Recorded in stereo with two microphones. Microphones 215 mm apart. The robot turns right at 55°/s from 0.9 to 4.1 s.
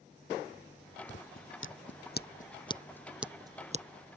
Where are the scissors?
65° left (ahead or behind); by 3.9 s 40° right (ahead or behind).